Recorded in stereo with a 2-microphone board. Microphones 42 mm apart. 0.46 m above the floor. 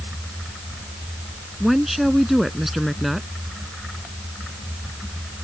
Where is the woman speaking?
5° right (ahead or behind).